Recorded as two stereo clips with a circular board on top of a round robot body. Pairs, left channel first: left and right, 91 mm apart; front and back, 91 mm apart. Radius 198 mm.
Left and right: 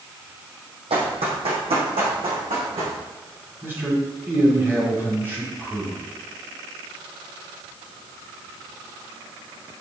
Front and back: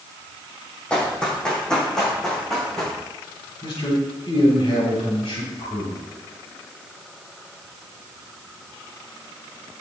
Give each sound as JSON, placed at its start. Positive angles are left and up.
{"t": 0.9, "sound": "running footsteps", "azimuth_deg": -80, "distance_m": 3.0}
{"t": 3.6, "sound": "a man speaking", "azimuth_deg": -25, "distance_m": 5.5}